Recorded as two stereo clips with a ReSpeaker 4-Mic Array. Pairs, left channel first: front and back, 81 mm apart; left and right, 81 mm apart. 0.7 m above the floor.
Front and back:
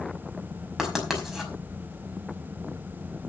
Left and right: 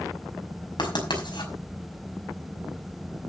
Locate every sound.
0.8 s writing: 95° left, 5 m